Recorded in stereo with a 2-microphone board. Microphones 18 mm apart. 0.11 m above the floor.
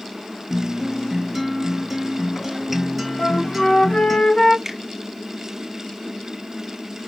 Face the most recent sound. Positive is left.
turn(degrees=-10)  # may be behind; listen again after turning